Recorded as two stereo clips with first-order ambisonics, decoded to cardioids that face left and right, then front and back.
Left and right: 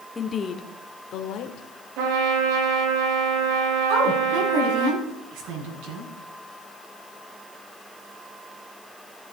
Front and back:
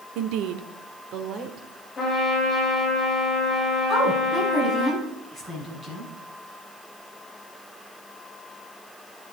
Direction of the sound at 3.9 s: 100° right.